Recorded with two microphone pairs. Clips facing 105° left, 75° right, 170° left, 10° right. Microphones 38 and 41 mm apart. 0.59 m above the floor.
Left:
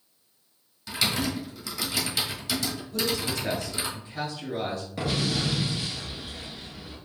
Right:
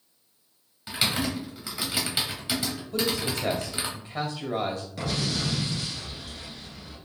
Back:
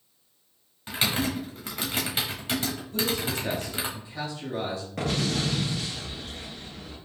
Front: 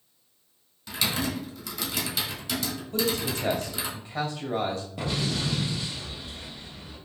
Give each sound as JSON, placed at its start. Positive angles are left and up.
{"t": 0.9, "sound": "typing on a keyboard", "azimuth_deg": -140, "distance_m": 1.3}
{"t": 2.9, "sound": "a man speaking", "azimuth_deg": -55, "distance_m": 2.5}
{"t": 5.0, "sound": "an explosion", "azimuth_deg": -175, "distance_m": 1.9}